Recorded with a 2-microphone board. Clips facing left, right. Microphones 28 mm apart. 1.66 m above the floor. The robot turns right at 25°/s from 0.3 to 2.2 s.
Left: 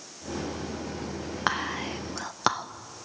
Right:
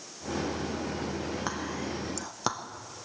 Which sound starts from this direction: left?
Whispering, at 1.5 s.